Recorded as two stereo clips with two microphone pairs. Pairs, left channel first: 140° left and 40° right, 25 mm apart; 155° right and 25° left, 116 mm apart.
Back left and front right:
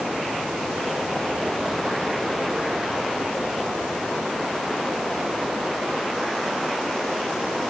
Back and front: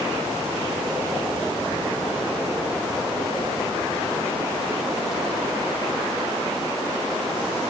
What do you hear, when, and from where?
Only background noise.